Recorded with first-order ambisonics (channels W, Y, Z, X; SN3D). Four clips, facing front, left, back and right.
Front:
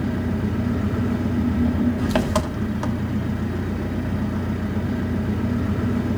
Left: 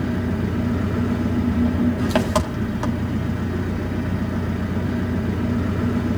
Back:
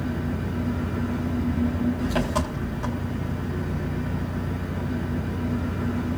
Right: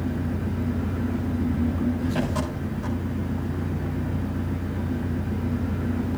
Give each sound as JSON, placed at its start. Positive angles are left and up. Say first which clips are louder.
{"t": 0.0, "sound": "an engine running", "louder": "left 5 dB, front 4 dB", "azimuth_deg": 55, "distance_m": 2.0}